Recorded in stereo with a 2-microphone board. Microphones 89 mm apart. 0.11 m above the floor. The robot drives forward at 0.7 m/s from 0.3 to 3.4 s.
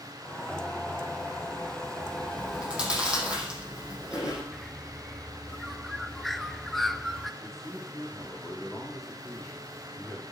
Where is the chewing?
15° right (ahead or behind), 5 m; by 4.4 s 10° right (ahead or behind), 6 m.